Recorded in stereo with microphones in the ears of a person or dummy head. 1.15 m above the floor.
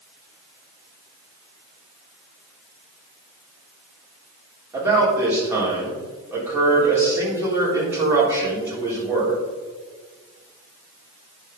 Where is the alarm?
No alarm in this recording.